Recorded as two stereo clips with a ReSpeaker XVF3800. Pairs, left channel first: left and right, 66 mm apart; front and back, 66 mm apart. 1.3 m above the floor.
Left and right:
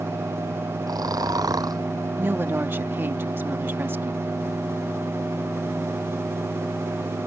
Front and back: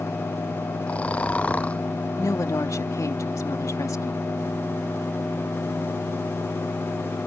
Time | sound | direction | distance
0.9 | snoring | 70° right | ?
2.2 | a woman speaking | 35° right | ?